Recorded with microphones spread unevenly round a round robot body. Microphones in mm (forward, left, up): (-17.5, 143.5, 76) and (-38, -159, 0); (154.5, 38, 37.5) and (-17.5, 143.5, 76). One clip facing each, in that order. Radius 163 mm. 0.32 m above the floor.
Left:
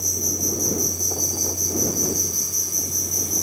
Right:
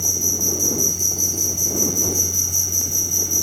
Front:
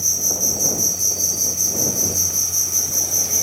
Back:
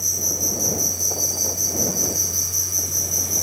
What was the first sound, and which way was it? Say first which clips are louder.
An insect: right 1 dB, front 1 dB; 25° right.